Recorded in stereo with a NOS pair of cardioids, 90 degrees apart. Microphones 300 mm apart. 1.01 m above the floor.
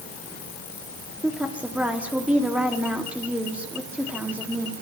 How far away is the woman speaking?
About 1.9 m.